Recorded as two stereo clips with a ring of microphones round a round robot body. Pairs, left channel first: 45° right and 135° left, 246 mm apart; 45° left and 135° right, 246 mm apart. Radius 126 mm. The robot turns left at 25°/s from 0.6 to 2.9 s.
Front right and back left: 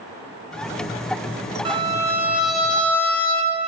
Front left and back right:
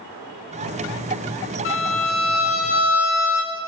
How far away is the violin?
About 0.9 m.